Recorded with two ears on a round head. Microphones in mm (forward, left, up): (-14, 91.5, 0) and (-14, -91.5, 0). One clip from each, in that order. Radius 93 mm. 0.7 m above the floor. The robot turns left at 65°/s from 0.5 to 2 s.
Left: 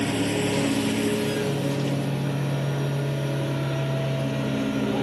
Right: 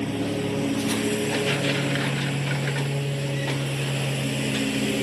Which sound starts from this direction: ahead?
A lawn mower, at 0.0 s.